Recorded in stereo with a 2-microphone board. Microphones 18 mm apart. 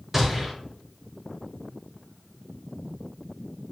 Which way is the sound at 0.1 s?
15° right (ahead or behind).